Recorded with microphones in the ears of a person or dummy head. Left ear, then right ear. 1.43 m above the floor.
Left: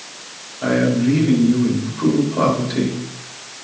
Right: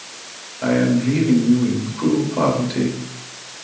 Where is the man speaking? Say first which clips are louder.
Left 1 dB; 10° right (ahead or behind), 3.5 m.